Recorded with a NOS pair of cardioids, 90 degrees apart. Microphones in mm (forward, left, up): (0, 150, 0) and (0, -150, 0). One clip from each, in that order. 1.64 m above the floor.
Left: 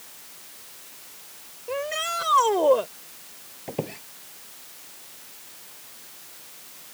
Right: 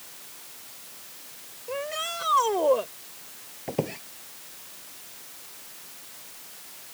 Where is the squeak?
15° right.